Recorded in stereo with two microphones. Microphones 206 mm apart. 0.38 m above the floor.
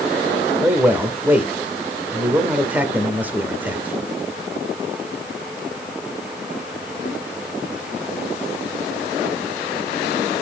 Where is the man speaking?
10° right (ahead or behind), 1.3 m.